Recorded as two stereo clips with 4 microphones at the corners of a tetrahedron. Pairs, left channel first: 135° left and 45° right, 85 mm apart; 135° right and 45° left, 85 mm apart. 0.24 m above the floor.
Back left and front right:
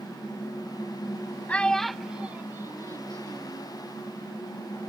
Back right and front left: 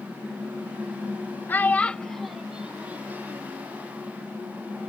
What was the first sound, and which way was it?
A child speaking, 175° right.